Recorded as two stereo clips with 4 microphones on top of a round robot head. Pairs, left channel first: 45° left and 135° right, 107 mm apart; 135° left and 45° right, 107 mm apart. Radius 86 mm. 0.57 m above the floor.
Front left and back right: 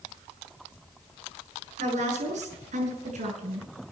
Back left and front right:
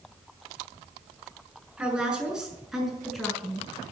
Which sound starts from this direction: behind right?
A woman speaking, at 1.8 s.